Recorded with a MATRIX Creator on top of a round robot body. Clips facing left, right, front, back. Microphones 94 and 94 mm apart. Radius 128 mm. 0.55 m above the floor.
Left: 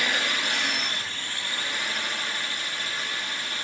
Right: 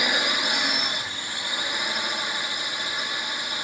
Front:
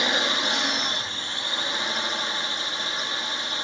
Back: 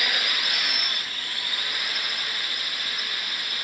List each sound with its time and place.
0.0 s a drone: 30° right